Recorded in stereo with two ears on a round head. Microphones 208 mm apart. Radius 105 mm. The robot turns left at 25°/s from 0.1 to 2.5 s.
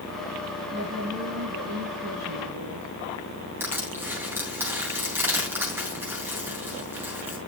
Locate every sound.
0.7 s a woman speaking: 30° right, 4.5 m; by 2.9 s 75° right, 4.5 m
3.6 s crushing: 10° right (ahead or behind), 3.5 m